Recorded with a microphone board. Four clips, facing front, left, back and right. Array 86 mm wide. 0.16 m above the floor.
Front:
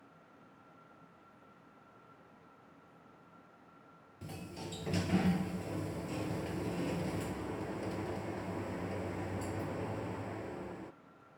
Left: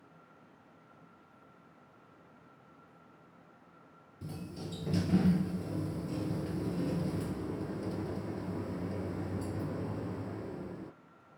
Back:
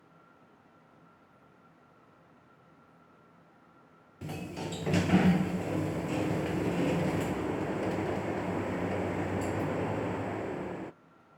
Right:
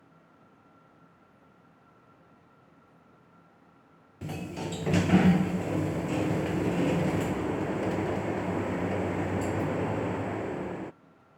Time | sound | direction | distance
4.2 | a sliding door | 120° right | 0.6 m